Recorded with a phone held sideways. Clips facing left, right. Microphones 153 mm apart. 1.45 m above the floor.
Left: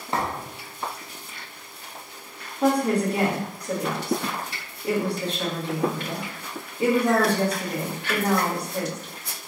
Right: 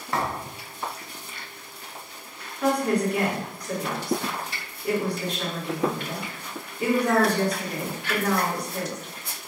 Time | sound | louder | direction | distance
0.1 | a thud | even | 20° left (ahead or behind) | 0.8 m
2.6 | a woman speaking | left 2 dB | 25° left (ahead or behind) | 1.3 m